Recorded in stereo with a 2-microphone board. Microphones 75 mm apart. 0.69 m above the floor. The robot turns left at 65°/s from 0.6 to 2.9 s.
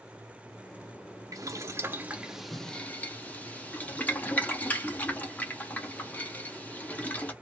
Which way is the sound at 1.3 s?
50° right (ahead or behind).